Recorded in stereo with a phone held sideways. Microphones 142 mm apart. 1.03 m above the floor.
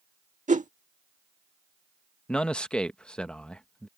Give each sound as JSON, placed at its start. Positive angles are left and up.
{"t": 0.5, "sound": "a whoosh", "side_deg": -60}
{"t": 2.3, "sound": "a man speaking", "side_deg": 5}